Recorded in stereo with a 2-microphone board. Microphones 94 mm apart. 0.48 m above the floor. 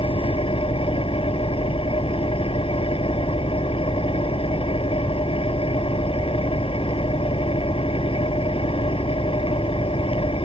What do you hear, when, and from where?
0.0 s an engine running: 80° left